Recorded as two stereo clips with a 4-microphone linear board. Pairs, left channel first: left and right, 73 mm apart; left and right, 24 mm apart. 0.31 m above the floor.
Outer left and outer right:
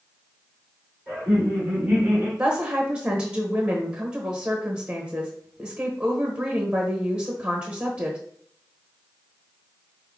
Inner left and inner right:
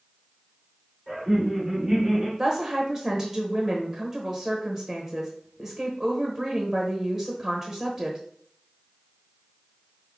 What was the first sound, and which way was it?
Laughter, 15° left (ahead or behind).